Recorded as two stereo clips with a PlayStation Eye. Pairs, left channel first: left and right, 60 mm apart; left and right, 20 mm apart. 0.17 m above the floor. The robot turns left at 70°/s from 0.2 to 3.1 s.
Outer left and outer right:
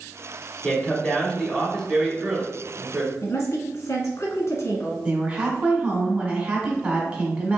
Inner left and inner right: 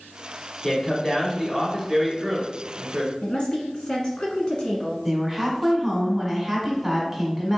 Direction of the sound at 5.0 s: 20° right (ahead or behind).